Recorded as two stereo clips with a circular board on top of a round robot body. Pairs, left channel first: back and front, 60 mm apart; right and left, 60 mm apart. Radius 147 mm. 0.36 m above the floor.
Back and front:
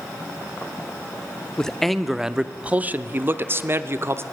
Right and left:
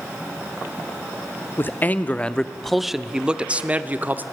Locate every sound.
1.6 s a man speaking: 105° right, 0.9 m; by 4.2 s 35° left, 1.3 m